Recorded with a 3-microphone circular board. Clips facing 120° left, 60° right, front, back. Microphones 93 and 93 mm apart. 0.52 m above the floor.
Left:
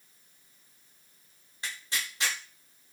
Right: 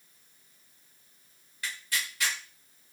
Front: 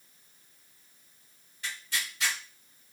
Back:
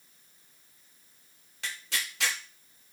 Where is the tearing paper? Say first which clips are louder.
Right 1 dB, even; 175° right, 0.7 m.